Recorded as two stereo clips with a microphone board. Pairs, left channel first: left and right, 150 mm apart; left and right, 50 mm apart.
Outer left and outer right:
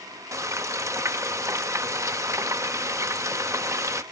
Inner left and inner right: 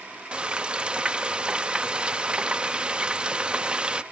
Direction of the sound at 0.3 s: 20° right (ahead or behind).